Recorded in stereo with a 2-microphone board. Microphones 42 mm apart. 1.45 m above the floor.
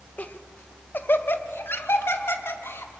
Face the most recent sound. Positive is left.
turn(degrees=80)